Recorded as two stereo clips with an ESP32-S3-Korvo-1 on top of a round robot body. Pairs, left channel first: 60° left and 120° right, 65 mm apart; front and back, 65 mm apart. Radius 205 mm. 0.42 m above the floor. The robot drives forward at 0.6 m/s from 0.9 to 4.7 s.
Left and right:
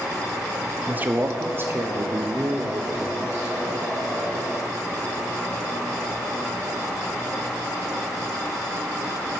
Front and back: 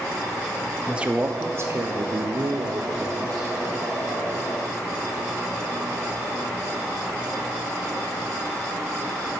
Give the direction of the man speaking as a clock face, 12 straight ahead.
4 o'clock.